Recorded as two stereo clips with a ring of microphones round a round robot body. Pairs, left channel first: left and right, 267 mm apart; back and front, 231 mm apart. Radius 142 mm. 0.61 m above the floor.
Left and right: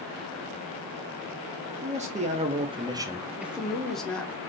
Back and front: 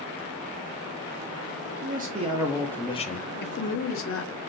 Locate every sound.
1.8 s a man speaking: 30° right, 0.8 m; by 4.3 s 175° left, 1.2 m